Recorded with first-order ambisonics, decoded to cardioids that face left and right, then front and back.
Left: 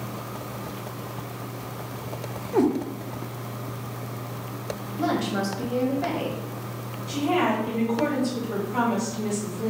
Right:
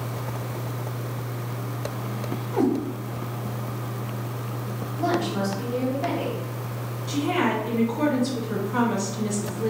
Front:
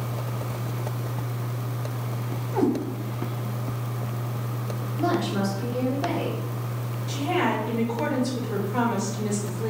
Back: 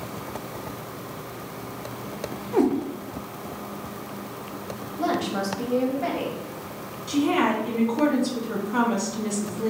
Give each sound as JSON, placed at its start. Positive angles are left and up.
{"t": 2.5, "sound": "a cat meowing", "azimuth_deg": 140, "distance_m": 1.1}
{"t": 5.0, "sound": "a woman speaking", "azimuth_deg": 140, "distance_m": 1.5}
{"t": 7.1, "sound": "a woman speaking", "azimuth_deg": -165, "distance_m": 1.9}